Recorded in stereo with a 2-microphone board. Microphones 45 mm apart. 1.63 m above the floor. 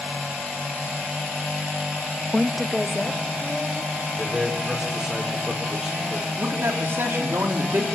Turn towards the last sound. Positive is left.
turn(degrees=-75)  # may be behind; listen again after turning